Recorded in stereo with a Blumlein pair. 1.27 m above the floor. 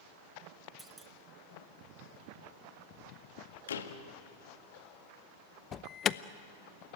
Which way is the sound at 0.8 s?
10° right.